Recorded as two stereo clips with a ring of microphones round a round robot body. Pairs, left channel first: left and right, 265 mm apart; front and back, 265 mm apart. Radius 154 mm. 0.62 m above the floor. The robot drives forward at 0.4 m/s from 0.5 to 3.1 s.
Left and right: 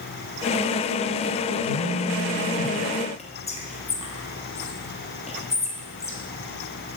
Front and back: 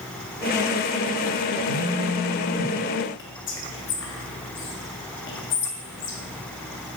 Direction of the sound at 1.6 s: Straight ahead.